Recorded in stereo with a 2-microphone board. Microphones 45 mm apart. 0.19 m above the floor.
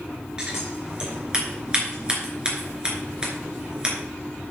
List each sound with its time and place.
0.4 s scissors: 20° right (ahead or behind), 3.5 m